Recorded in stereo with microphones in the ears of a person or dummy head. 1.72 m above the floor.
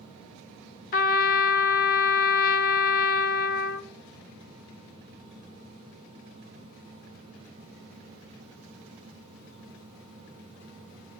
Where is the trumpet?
45° left (ahead or behind), 2 m.